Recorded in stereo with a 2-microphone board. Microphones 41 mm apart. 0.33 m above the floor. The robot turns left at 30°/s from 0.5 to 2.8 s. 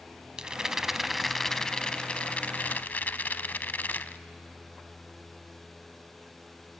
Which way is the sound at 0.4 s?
160° right.